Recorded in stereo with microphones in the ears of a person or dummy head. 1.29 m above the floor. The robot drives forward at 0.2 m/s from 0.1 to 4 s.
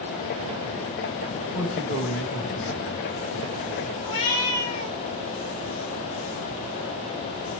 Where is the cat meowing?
30° left (ahead or behind), 2.5 m.